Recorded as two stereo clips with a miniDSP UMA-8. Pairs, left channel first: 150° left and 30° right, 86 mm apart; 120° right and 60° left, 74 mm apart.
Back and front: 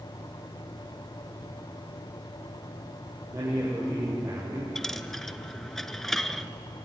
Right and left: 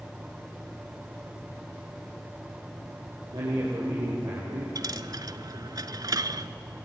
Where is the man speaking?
30° left, 6 m.